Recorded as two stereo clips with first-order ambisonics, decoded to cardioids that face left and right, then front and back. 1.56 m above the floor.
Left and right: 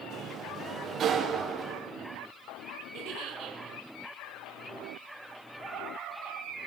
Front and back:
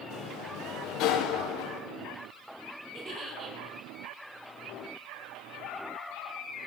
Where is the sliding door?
30° right, 0.9 m.